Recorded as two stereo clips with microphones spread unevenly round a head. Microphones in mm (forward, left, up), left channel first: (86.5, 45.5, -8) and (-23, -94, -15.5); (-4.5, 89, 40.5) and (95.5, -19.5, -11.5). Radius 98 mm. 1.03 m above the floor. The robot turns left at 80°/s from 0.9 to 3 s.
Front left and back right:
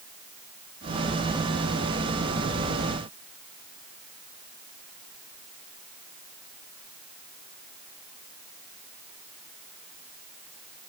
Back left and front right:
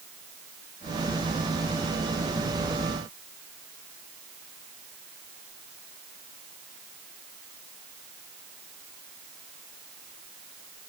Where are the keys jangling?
I don't hear keys jangling.